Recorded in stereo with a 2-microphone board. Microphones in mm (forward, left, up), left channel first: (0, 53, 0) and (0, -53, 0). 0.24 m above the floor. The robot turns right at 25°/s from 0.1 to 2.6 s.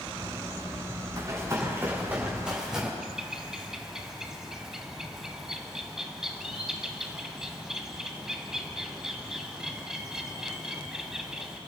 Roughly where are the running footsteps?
Right.